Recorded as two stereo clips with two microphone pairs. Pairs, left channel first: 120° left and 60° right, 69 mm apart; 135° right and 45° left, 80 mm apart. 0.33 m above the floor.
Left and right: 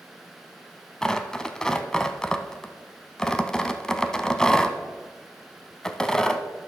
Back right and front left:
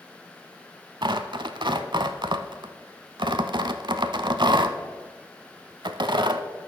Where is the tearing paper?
40° left, 0.5 m.